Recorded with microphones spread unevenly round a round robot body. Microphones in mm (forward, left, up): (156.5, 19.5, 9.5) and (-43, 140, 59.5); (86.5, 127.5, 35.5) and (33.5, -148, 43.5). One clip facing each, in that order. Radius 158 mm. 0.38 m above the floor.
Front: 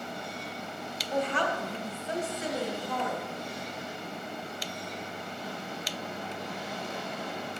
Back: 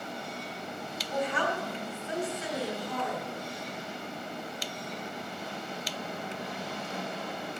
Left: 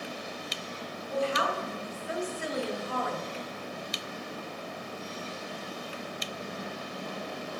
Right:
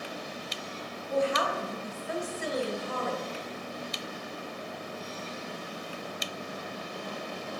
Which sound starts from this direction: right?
A woman speaking, at 1.1 s.